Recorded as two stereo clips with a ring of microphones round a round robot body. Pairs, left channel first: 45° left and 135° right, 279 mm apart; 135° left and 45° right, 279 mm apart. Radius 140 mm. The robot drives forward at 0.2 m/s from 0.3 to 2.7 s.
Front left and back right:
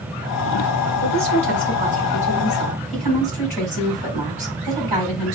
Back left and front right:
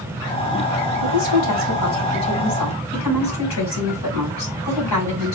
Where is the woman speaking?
155° left, 3 m; by 5.3 s 160° left, 3.5 m.